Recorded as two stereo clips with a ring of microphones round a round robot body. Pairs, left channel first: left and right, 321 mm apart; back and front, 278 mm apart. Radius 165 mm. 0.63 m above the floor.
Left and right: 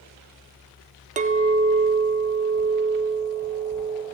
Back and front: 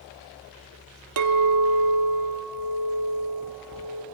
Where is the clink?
25° right, 0.9 m.